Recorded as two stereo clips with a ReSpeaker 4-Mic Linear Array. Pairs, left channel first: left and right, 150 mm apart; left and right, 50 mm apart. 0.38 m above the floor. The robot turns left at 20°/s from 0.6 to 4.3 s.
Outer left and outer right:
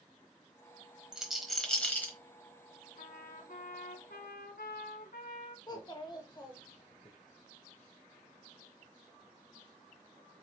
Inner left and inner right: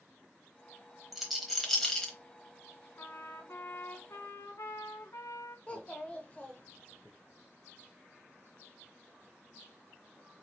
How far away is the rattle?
About 1.0 m.